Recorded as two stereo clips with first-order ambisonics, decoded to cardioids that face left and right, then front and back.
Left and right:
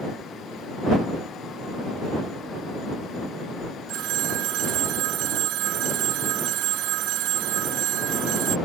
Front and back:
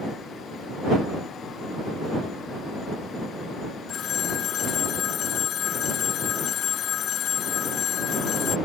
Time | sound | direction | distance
3.9 | a phone ringing | 55° right | ?